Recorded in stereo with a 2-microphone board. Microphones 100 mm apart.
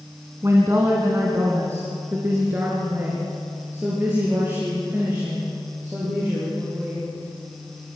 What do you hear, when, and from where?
0.4 s a woman speaking: 30° right (ahead or behind), 2.5 m; by 7.1 s 20° right (ahead or behind), 7.5 m